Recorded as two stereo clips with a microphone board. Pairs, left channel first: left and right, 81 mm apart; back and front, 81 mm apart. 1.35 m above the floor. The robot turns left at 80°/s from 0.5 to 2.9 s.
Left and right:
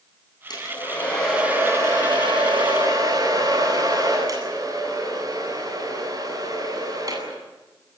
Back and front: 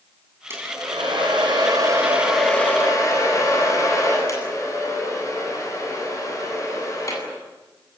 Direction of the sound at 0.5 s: 60° left.